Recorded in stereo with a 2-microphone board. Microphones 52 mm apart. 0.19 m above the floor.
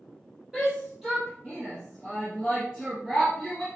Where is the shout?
10° right (ahead or behind), 4 m; by 3.6 s centre (ahead or behind), 2.5 m.